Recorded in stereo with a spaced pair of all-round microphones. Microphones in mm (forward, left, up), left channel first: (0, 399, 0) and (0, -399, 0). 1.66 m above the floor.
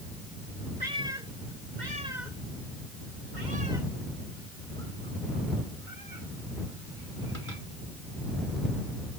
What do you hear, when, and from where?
0.8 s a cat meowing: 60° right (ahead or behind); by 7.6 s 80° right